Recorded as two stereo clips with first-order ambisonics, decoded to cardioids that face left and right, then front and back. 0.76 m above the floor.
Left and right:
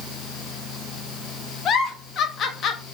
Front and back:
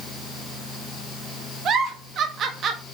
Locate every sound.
1.6 s a giggle: 130° left, 0.5 m